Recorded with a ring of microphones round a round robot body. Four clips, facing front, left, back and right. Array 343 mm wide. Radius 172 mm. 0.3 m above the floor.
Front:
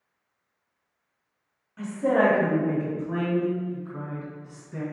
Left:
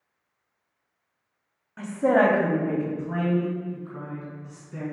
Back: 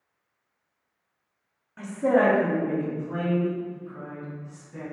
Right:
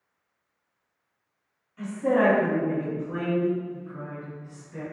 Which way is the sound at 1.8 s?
110° left.